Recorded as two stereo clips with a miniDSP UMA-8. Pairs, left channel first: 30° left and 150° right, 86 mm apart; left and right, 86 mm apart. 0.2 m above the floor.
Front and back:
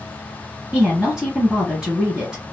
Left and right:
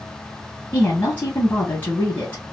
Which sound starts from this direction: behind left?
A woman speaking, at 0.7 s.